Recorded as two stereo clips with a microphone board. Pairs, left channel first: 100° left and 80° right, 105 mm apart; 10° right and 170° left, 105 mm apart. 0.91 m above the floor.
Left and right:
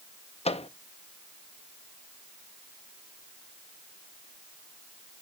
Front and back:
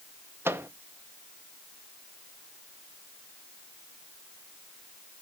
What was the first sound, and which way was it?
A microwave, 105° left.